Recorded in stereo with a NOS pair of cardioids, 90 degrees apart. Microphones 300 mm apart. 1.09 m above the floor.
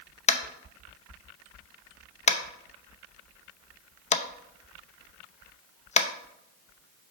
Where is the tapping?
25° left, 0.6 m.